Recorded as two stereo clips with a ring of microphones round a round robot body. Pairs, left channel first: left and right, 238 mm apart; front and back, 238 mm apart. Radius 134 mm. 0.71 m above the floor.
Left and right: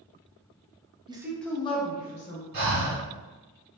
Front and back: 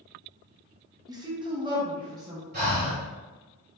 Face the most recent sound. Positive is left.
turn(degrees=-130)